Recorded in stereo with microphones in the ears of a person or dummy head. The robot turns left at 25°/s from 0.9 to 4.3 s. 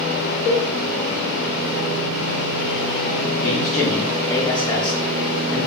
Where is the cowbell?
35° left (ahead or behind), 2 m.